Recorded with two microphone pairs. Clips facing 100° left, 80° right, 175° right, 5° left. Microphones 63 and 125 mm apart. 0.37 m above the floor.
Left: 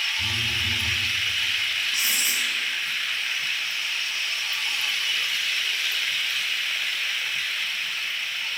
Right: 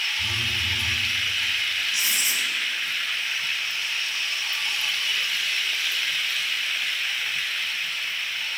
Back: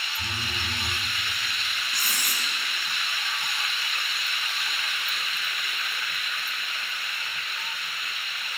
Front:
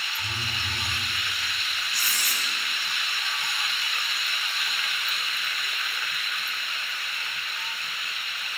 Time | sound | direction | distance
0.2 | a phone buzzing | 140° left | 4.5 m
1.9 | writing | 150° left | 5.5 m